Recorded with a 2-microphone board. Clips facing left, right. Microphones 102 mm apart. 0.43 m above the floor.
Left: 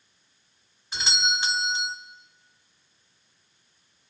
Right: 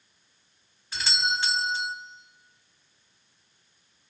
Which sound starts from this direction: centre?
A doorbell, at 0.9 s.